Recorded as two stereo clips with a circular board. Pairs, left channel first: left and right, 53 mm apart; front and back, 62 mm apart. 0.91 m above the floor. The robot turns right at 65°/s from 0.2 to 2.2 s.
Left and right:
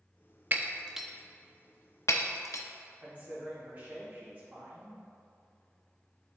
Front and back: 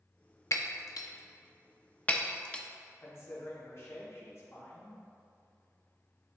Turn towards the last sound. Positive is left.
turn(degrees=-35)